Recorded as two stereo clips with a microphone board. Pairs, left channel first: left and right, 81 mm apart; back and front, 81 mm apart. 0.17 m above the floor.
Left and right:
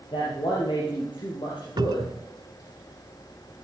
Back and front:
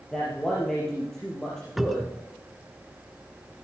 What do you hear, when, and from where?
0.1 s a man speaking: 100° left, 5.5 m
1.8 s a cupboard door: 85° right, 0.6 m